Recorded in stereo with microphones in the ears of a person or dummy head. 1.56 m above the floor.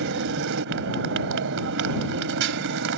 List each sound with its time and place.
0.0 s a motorcycle: 65° right (ahead or behind)